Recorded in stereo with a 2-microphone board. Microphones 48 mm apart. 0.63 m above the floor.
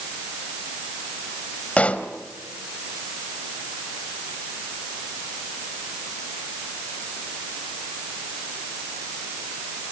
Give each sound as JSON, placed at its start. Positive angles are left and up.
{"t": 1.8, "sound": "a pop", "side_deg": 30, "distance_m": 1.4}